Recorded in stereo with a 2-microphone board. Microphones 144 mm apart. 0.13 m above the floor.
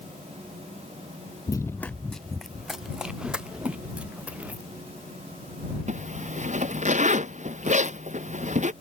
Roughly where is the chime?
I don't hear a chime.